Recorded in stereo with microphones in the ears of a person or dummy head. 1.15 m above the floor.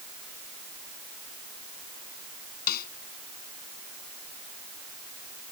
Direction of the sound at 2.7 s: 50° left (ahead or behind).